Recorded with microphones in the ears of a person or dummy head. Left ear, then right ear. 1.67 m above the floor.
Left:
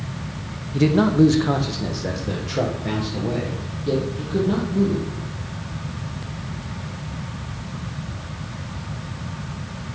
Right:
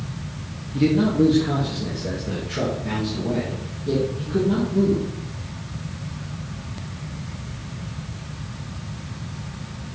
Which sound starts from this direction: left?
A man speaking, at 0.7 s.